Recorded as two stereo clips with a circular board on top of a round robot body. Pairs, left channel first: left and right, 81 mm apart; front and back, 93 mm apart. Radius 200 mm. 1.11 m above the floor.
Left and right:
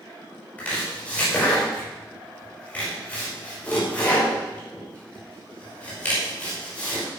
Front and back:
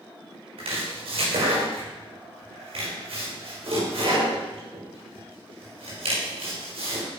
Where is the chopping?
160° left, 5.5 m.